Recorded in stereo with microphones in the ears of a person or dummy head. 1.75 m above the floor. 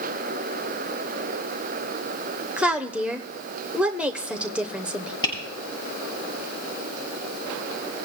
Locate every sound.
2.6 s a woman speaking: 10° right (ahead or behind), 1.0 m
5.2 s tapping: 25° left (ahead or behind), 8.5 m